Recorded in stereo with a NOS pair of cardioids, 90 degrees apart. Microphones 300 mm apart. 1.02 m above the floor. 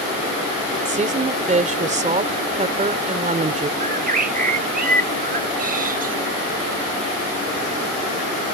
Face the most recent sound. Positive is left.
turn(degrees=-30)